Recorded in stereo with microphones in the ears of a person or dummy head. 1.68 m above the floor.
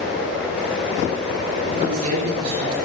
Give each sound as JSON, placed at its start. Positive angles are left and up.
{"t": 1.7, "sound": "a woman speaking", "side_deg": -45, "distance_m": 8.0}